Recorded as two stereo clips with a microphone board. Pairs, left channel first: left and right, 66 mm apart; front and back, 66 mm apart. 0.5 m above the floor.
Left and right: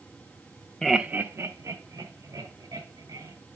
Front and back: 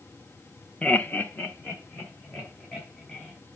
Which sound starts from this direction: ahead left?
Laughter, at 0.8 s.